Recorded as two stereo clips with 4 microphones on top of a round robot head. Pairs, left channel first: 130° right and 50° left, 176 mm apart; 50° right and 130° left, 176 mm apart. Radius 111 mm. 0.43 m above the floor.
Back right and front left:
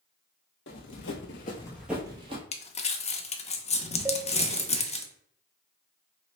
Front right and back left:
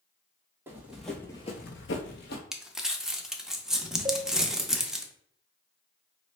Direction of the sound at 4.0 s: 110° left.